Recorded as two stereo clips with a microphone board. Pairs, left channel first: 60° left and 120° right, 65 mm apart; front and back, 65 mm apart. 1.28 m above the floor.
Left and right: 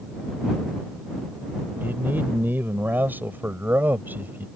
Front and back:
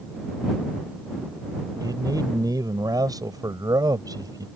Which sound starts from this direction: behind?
A man speaking, at 1.8 s.